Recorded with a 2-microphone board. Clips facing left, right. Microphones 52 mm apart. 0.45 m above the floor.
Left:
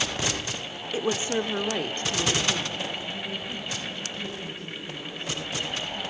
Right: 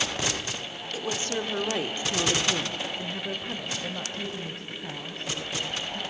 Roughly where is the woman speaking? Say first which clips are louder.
Left 4 dB; left.